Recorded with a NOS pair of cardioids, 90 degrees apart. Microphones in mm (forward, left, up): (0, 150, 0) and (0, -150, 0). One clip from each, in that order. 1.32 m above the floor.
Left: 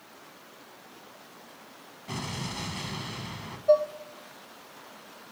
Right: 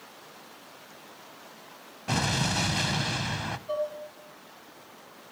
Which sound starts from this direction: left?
Dishes clattering, at 3.7 s.